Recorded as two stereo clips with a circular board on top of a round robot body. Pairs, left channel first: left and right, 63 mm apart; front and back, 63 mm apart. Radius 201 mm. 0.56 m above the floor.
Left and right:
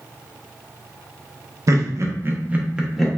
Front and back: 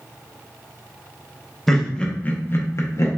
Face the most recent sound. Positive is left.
turn(degrees=0)